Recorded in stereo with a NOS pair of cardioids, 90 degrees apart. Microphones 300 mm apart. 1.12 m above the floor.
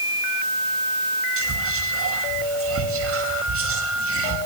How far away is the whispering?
About 2 m.